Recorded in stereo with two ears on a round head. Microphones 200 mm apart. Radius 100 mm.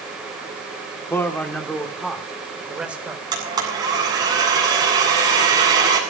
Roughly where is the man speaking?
Centre.